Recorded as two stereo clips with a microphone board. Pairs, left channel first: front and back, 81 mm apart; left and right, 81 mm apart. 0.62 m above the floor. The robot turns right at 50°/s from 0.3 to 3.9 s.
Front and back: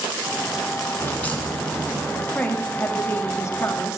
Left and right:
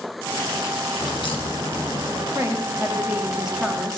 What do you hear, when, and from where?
1.0 s a crack: 60° left, 1.8 m; by 2.2 s 120° left, 1.8 m
2.4 s a woman speaking: 65° right, 1.3 m; by 4.0 s 10° left, 1.3 m